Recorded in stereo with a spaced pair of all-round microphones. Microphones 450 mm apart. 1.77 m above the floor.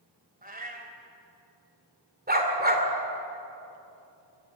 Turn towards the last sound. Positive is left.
turn(degrees=-20)  # may be behind; listen again after turning